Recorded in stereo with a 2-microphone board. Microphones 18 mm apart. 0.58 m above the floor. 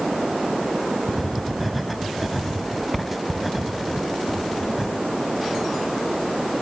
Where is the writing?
Centre (ahead or behind), 1.9 m.